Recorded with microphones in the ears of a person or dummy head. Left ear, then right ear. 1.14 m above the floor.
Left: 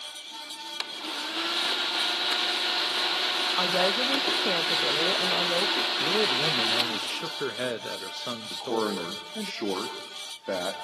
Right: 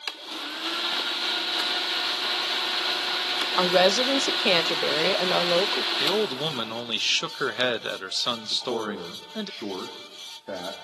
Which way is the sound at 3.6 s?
80° right.